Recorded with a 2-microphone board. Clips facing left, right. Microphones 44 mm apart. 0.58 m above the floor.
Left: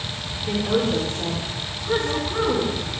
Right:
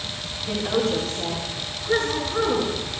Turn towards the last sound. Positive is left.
turn(degrees=25)  # may be behind; listen again after turning